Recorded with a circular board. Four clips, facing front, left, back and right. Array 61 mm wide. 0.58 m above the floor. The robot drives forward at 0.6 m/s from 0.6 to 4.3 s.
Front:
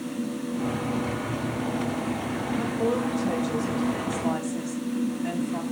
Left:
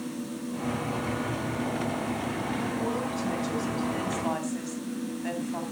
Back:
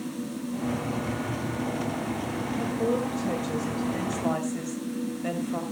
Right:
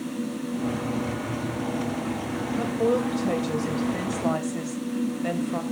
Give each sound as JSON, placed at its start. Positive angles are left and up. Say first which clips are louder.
{"t": 2.5, "sound": "a woman speaking", "louder": "right 10 dB, front 1 dB", "azimuth_deg": -85, "distance_m": 2.0}